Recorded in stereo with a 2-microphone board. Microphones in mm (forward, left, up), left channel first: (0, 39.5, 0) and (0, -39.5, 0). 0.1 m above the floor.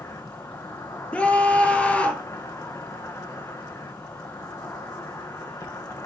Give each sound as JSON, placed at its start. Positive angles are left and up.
{"t": 0.0, "sound": "an insect", "side_deg": 35, "distance_m": 1.7}
{"t": 1.1, "sound": "a scream", "side_deg": 15, "distance_m": 1.6}